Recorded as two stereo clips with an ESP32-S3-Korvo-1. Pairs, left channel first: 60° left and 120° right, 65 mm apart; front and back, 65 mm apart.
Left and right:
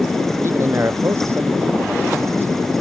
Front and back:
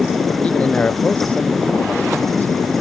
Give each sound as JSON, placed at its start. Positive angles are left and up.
{"t": 0.4, "sound": "a man speaking", "azimuth_deg": -70}